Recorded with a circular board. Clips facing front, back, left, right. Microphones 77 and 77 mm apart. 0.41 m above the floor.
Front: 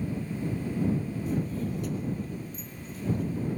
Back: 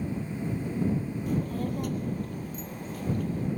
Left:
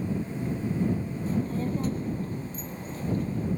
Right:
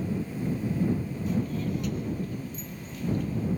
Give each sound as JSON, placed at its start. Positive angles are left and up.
{"t": 1.3, "sound": "a child speaking", "azimuth_deg": 145}